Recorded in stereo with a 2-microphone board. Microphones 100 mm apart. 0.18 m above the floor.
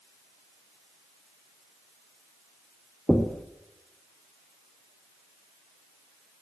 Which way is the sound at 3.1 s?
10° left (ahead or behind).